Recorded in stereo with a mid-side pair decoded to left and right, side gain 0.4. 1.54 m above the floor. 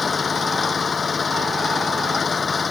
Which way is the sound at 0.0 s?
40° left.